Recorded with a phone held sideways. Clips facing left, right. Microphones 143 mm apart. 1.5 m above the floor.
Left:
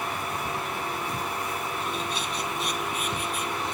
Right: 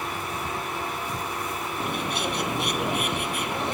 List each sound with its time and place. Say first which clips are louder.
1.8 s a bird: right 3 dB; 65° right (ahead or behind)